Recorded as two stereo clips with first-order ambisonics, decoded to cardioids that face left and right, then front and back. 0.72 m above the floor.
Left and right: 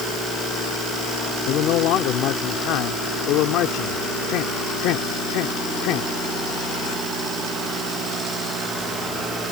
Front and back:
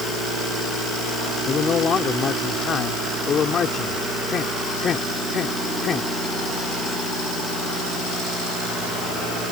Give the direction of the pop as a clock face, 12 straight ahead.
No pop in this recording.